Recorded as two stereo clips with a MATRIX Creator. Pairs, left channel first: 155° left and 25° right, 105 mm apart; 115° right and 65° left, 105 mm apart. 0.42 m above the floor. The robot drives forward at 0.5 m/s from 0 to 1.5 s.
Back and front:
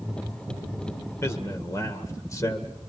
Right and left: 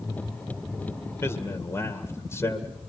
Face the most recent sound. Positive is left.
turn(degrees=-160)